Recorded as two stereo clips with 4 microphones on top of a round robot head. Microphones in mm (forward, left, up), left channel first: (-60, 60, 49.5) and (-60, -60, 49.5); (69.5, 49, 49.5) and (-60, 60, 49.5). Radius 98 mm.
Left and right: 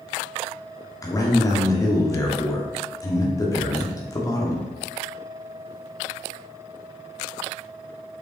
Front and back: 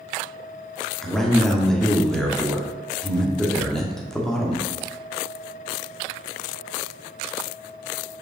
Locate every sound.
1.0 s a man speaking: 75° left, 1.5 m